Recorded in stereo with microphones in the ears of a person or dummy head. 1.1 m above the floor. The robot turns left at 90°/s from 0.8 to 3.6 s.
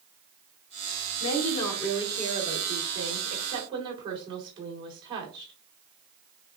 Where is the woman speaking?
65° left, 2.5 m; by 5.5 s 155° right, 2.5 m.